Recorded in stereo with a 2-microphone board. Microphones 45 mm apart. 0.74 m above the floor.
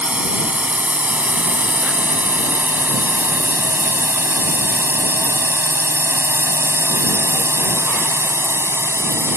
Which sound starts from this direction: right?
A drone, at 0.0 s.